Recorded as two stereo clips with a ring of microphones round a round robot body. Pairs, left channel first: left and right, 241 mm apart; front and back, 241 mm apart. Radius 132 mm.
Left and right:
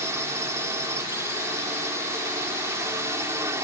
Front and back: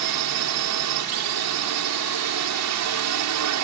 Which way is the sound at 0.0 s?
170° right.